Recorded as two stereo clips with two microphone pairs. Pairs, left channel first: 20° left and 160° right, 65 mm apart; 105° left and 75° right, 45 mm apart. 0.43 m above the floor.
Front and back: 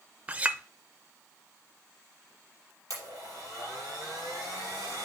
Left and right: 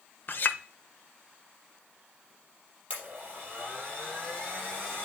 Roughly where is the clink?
Behind left.